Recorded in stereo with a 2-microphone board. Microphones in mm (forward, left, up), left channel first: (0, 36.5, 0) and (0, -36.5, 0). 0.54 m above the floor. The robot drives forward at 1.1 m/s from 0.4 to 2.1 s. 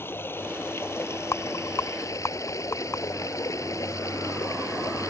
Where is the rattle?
45° left (ahead or behind); by 3.0 s 40° left (ahead or behind).